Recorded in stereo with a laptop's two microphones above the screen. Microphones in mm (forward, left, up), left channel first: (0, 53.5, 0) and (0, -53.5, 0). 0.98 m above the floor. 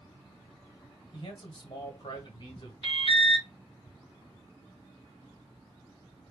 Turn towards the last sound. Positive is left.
turn(degrees=60)  # may be behind; listen again after turning